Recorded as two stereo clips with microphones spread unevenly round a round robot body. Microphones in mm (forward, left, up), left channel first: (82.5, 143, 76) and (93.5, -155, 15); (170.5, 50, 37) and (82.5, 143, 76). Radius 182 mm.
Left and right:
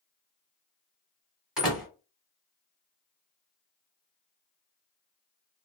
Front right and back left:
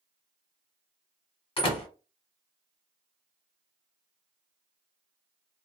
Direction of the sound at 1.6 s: 5° right.